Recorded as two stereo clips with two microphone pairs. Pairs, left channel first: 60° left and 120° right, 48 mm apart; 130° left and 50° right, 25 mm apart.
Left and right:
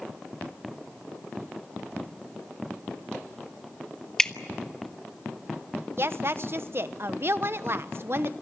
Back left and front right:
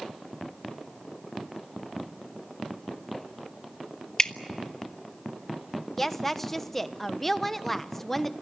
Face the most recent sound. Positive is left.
turn(degrees=-150)